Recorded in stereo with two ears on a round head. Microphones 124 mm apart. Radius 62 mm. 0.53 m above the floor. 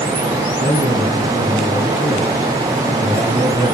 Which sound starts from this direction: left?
A man speaking, at 0.6 s.